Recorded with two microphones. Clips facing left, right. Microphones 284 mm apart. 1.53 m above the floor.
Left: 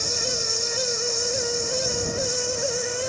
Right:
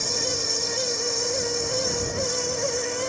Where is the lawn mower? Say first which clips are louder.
Right 1 dB; 60° right (ahead or behind); by 3.1 s 65° right (ahead or behind).